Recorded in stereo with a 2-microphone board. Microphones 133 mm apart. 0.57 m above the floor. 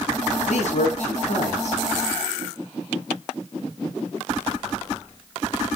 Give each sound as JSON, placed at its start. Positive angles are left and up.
{"t": 0.5, "sound": "a man speaking", "side_deg": 60, "distance_m": 7.5}